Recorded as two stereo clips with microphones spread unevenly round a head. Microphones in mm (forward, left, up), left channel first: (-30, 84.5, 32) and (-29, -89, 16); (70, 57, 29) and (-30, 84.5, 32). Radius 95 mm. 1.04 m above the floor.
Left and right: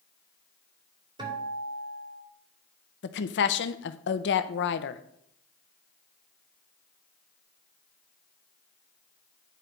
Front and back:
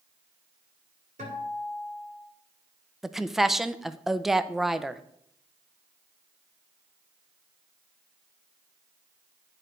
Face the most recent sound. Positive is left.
turn(degrees=75)